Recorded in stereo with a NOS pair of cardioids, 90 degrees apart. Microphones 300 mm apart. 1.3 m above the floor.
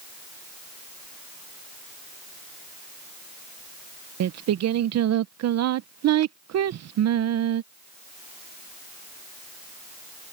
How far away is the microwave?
No microwave in this recording.